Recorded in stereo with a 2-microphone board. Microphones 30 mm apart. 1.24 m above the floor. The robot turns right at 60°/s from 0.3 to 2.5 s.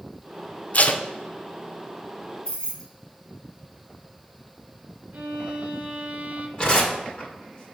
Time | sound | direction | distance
0.7 | tape being pulled | 45° left (ahead or behind) | 0.6 m
2.5 | keys jangling | 30° left (ahead or behind) | 1.9 m
5.1 | a violin | 50° right (ahead or behind) | 0.6 m
6.6 | tearing paper | 30° left (ahead or behind) | 2 m